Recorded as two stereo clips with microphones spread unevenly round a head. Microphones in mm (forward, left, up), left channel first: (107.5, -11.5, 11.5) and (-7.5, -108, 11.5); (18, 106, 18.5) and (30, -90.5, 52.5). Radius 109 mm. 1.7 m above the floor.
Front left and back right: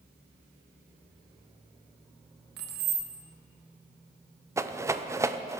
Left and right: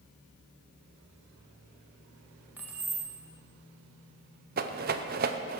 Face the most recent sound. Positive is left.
turn(degrees=-70)